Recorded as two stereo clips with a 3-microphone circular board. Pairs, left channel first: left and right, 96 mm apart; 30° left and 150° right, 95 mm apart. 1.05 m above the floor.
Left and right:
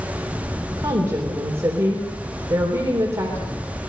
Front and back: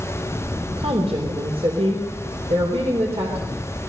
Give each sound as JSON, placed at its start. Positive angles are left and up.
{"t": 0.8, "sound": "a woman speaking", "azimuth_deg": -150, "distance_m": 4.0}